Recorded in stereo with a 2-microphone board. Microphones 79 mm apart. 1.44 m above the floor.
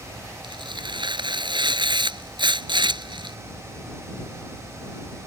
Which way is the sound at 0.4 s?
80° right.